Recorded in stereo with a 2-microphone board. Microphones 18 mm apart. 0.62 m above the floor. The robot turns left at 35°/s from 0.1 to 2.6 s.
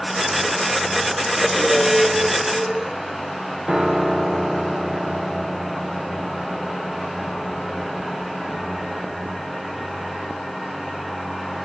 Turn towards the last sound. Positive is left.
turn(degrees=-65)  # may be behind; listen again after turning